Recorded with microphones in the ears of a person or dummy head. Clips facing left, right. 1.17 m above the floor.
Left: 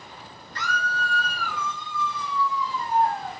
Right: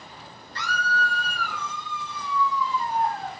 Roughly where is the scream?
Right.